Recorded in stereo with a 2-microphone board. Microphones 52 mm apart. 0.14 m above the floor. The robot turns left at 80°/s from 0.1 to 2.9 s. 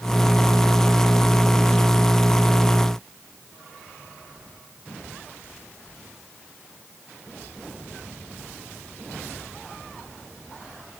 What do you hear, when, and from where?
Only background noise.